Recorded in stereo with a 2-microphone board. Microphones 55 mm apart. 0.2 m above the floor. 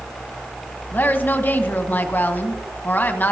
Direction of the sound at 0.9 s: 35° left (ahead or behind).